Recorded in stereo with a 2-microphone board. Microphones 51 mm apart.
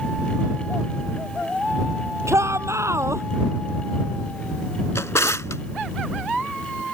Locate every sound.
2.3 s a shout: 65° right (ahead or behind)
5.0 s a drawer: 70° left (ahead or behind)